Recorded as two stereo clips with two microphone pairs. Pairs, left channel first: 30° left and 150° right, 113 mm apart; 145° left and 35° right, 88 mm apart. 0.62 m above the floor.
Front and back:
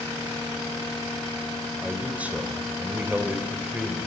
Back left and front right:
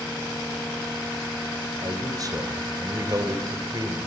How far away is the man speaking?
About 3 m.